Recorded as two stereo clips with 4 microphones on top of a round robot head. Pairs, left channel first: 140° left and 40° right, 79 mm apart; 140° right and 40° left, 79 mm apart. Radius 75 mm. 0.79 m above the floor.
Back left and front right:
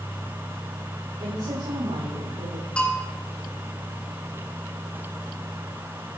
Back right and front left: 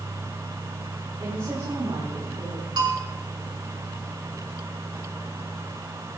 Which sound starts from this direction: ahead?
A woman speaking, at 1.2 s.